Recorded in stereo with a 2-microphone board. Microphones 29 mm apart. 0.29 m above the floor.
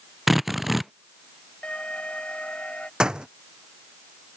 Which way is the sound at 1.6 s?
50° left (ahead or behind).